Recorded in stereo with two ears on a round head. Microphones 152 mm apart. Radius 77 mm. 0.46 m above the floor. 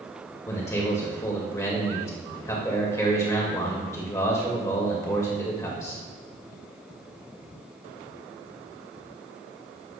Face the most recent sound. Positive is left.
turn(degrees=15)  # may be behind; listen again after turning